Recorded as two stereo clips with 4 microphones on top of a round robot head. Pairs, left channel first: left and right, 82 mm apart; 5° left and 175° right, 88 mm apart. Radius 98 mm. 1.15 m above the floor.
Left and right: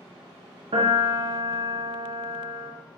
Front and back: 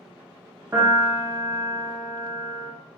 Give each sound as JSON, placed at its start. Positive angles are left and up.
{"t": 0.7, "sound": "a piano", "azimuth_deg": -100, "distance_m": 0.9}